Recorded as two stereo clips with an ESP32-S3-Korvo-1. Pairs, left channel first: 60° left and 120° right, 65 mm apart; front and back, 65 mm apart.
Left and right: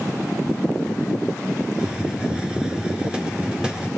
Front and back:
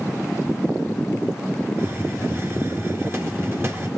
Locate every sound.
1.8 s a hiss: 175° left, 1.6 m